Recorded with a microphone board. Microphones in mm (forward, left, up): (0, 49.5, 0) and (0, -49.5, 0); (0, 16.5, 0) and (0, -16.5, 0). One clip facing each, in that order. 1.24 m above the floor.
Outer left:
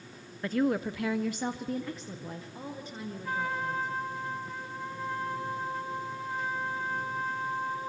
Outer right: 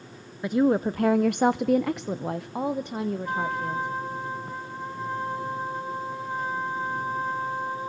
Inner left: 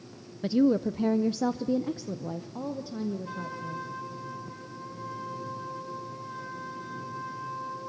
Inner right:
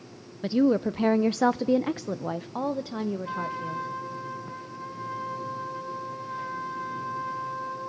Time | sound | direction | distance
0.4 | a woman speaking | 15° right (ahead or behind) | 0.5 m
3.2 | a trumpet | 20° right (ahead or behind) | 4.5 m